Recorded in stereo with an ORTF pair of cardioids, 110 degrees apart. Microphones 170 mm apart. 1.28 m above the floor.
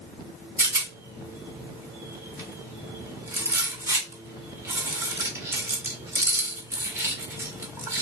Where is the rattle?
15° right, 1.1 m.